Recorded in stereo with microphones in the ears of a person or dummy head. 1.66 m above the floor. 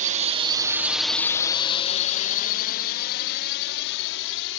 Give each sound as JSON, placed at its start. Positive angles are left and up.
{"t": 0.0, "sound": "a drone", "side_deg": -45}